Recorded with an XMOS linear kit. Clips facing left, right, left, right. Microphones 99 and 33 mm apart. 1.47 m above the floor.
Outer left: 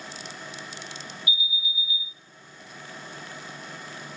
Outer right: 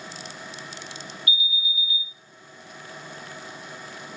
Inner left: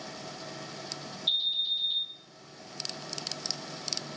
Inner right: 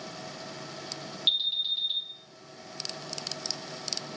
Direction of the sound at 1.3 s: 55° right (ahead or behind).